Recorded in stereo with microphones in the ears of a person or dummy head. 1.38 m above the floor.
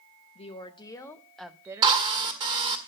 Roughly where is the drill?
Right.